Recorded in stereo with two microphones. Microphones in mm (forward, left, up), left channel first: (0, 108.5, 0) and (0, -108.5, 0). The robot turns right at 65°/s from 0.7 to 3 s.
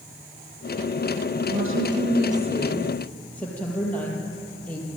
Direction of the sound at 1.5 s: 95° right.